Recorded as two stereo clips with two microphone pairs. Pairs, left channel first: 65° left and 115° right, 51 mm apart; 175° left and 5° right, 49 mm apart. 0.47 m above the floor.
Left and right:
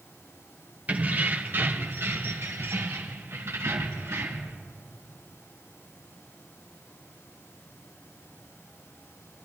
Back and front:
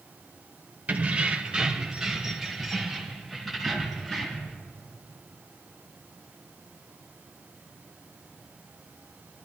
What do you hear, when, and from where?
0.9 s keys jangling: 60° right, 1.0 m; by 4.5 s 100° right, 2.5 m